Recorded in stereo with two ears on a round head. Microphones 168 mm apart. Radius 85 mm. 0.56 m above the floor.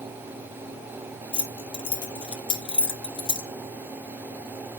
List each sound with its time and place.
1.3 s keys jangling: 25° left (ahead or behind), 0.8 m